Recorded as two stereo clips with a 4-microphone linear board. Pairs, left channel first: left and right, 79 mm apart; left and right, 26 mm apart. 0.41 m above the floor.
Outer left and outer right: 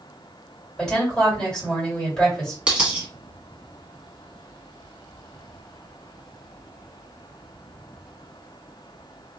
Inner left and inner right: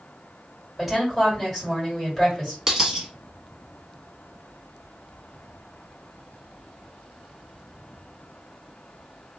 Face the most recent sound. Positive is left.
turn(degrees=-15)  # may be behind; listen again after turning